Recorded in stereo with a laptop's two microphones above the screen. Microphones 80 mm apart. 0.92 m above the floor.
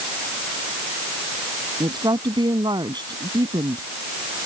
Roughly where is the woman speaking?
Right.